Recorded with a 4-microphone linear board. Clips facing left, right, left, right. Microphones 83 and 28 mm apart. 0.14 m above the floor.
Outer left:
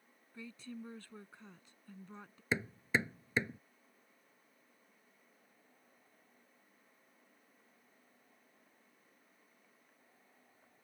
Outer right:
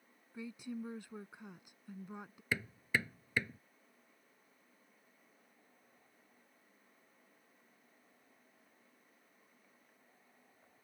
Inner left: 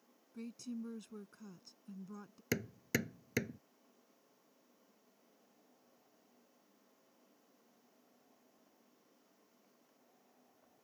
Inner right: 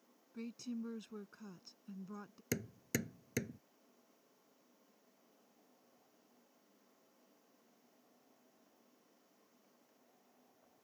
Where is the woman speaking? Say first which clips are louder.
Outer right 4 dB, inner right 1 dB; 15° right (ahead or behind).